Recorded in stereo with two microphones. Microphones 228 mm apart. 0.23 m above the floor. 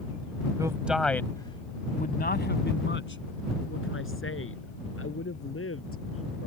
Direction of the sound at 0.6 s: 15° right (ahead or behind).